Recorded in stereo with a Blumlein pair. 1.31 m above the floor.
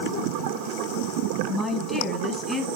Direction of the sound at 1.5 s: 10° left.